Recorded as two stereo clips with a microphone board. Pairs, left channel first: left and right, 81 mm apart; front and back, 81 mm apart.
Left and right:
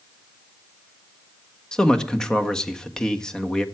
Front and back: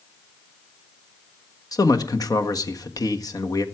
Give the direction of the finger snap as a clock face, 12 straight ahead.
I don't hear a finger snap.